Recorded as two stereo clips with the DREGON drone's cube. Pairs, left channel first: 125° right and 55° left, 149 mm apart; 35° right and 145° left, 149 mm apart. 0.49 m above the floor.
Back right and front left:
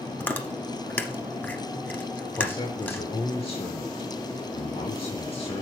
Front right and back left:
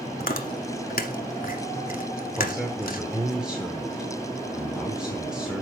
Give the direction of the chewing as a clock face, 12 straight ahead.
2 o'clock.